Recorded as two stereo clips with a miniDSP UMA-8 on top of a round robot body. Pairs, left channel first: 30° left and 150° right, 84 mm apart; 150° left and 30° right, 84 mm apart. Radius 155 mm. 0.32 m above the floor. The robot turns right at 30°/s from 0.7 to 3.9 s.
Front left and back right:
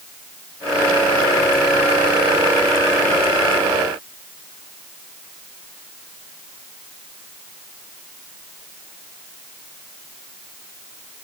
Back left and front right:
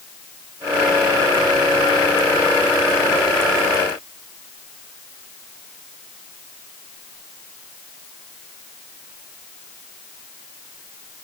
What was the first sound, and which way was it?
Only background noise.